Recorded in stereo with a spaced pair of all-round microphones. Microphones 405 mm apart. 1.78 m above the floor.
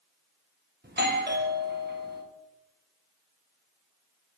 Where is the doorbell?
25° right (ahead or behind), 1.1 m.